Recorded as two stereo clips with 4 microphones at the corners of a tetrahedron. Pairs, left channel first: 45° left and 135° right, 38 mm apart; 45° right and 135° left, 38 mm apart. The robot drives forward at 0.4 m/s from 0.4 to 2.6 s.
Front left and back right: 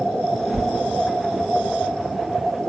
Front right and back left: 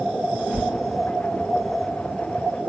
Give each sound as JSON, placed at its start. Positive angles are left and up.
{"t": 0.4, "sound": "a whoosh", "azimuth_deg": 140, "distance_m": 2.5}